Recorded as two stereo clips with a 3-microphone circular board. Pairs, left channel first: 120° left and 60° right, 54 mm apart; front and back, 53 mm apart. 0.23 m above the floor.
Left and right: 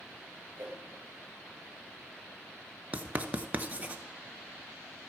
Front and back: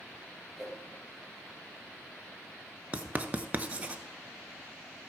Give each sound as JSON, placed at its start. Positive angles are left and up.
{"t": 0.6, "sound": "a whoosh", "azimuth_deg": -90, "distance_m": 1.9}
{"t": 2.9, "sound": "writing", "azimuth_deg": -115, "distance_m": 0.7}